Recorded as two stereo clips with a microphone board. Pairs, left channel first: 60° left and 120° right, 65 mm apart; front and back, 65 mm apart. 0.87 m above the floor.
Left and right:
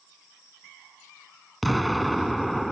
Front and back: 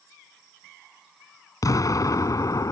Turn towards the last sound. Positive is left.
turn(degrees=-30)